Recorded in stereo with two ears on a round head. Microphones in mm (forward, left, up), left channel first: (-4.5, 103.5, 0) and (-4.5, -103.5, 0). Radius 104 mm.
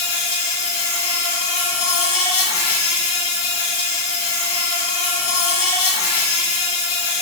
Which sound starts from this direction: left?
An insect, at 0.0 s.